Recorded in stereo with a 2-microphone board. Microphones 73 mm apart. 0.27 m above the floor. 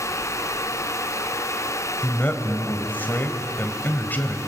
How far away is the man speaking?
About 1.6 m.